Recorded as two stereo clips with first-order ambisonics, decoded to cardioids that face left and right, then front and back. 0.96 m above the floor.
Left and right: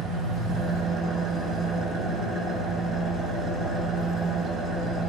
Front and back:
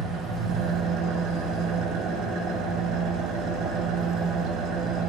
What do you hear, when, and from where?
0.0 s an engine running: 150° right, 0.8 m